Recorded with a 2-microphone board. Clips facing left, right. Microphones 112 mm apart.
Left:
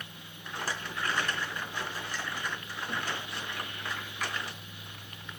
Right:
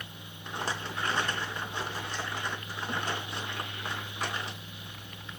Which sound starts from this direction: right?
A rattle, at 0.5 s.